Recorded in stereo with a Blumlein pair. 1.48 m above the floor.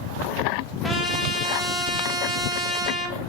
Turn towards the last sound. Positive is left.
turn(degrees=15)